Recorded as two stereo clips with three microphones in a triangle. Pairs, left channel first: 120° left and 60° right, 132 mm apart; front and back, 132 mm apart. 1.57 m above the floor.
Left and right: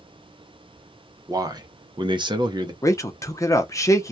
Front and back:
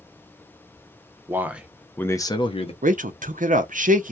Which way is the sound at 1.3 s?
115° right.